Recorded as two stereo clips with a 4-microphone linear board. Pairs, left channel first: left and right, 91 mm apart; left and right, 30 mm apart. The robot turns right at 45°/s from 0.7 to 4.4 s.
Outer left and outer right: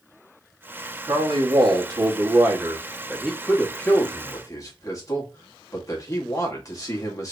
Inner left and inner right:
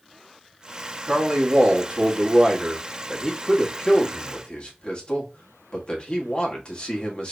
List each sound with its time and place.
1.1 s a man speaking: 100° right, 1.4 m; by 7.3 s 50° left, 1.4 m